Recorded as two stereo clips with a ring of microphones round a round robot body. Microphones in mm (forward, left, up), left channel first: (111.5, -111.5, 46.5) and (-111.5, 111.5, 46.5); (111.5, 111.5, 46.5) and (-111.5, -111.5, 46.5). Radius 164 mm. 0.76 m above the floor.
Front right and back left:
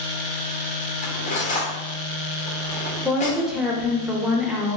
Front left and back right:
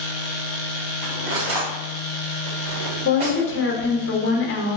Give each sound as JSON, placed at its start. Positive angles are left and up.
{"t": 1.0, "sound": "cutlery clinking", "azimuth_deg": -115, "distance_m": 1.0}
{"t": 3.0, "sound": "a woman speaking", "azimuth_deg": 50, "distance_m": 0.8}